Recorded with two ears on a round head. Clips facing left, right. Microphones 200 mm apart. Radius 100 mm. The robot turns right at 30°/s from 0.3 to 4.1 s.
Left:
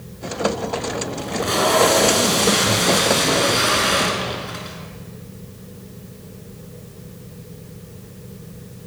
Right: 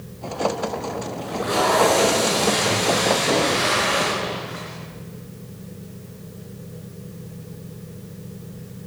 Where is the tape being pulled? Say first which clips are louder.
Left 1 dB; 40° left, 4 m; by 4.8 s 125° left, 4 m.